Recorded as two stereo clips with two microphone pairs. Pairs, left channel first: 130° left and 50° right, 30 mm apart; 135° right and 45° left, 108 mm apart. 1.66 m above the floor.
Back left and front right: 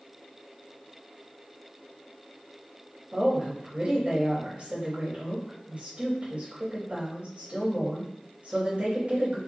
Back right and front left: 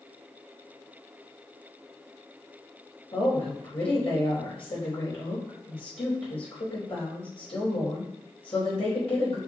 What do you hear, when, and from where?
3.1 s a woman speaking: 105° right, 3.5 m